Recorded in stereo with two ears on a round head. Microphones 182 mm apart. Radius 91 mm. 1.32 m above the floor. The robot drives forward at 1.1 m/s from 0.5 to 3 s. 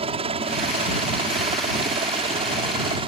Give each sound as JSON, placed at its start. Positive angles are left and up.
{"t": 0.0, "sound": "a helicopter", "side_deg": -30}